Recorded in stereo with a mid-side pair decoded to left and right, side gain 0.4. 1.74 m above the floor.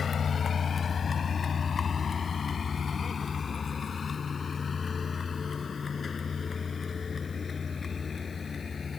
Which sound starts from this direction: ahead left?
A vehicle, at 0.0 s.